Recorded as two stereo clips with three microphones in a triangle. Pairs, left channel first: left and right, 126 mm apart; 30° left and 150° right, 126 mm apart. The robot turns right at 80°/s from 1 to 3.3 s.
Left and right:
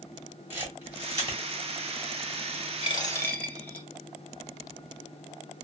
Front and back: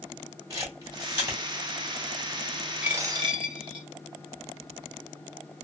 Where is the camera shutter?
140° right, 1.7 m; by 1.4 s 105° right, 1.7 m.